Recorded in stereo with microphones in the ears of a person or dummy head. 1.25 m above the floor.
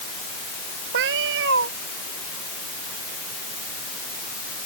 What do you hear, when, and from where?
0.9 s a cat meowing: 60° right (ahead or behind)